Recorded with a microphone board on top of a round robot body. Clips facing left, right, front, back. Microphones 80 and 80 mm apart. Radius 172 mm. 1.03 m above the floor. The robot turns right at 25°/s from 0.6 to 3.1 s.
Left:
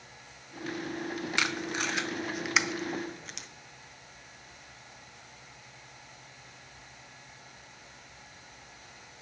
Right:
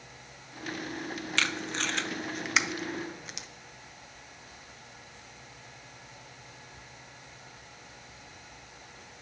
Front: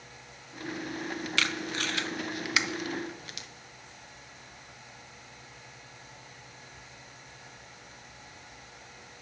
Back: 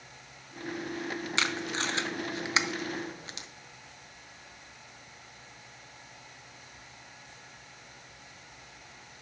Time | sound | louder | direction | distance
1.4 | tape being pulled | right 1 dB, back 1 dB | 145° left | 0.7 m